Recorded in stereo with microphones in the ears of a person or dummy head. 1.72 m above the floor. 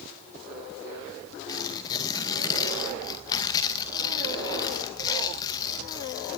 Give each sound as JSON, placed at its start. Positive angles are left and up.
{"t": 1.5, "sound": "tearing paper", "side_deg": 25, "distance_m": 1.9}